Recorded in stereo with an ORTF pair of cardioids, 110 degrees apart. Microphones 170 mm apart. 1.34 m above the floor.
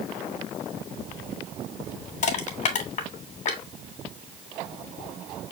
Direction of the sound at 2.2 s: 50° left.